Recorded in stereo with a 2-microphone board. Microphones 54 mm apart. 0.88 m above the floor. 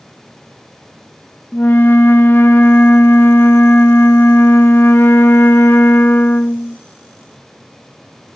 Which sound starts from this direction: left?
A flute, at 1.5 s.